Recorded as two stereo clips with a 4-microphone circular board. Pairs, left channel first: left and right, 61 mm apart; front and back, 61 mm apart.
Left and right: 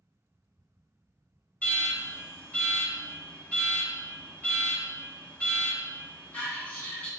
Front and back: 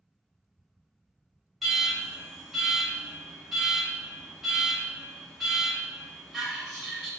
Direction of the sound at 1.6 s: 100° left.